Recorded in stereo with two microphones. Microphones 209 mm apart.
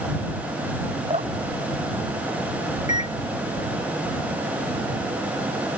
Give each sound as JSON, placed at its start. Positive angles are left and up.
{"t": 1.1, "sound": "dripping", "side_deg": -30}
{"t": 2.9, "sound": "a microwave", "side_deg": 35}